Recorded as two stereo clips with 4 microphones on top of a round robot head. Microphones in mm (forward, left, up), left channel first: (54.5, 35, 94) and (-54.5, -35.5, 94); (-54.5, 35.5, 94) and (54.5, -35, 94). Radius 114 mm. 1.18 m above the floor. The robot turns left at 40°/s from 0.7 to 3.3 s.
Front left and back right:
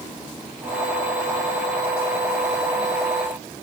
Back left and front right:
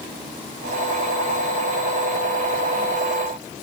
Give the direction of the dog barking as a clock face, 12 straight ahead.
I don't hear a dog barking.